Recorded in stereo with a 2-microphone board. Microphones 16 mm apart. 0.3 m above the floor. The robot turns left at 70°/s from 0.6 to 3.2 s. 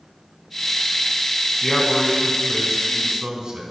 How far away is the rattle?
I don't hear a rattle.